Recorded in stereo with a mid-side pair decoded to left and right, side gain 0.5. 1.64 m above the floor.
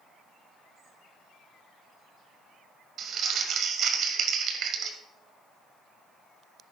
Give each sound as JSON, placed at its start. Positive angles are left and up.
{"t": 3.0, "sound": "crumpling", "azimuth_deg": -60, "distance_m": 1.9}